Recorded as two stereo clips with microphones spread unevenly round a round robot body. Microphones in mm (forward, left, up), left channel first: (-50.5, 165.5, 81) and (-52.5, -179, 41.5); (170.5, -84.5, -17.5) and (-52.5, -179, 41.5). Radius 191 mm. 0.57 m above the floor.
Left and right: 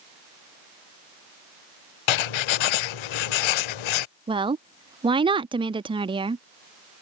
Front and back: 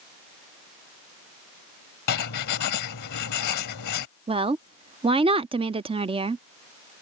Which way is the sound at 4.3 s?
85° right.